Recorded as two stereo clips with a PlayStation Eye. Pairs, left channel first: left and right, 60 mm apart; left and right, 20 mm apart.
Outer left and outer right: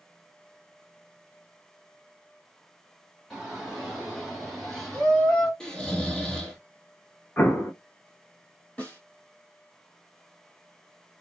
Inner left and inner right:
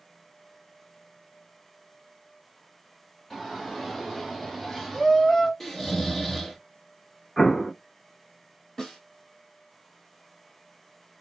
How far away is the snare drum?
About 1.5 m.